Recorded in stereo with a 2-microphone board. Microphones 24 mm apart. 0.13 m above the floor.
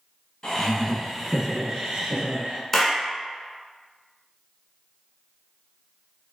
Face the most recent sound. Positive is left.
turn(degrees=15)  # may be behind; listen again after turning